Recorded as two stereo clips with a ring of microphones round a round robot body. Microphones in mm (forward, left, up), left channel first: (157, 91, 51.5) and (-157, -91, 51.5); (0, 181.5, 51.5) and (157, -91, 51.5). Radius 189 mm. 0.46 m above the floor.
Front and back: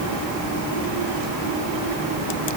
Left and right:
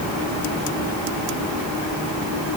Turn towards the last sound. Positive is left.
No sound to turn to.